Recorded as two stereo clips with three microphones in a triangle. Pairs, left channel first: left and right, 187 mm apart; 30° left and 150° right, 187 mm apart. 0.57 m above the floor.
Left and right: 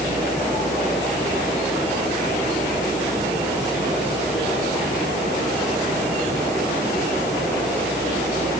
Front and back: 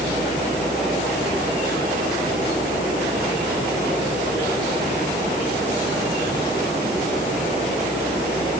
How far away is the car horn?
I don't hear a car horn.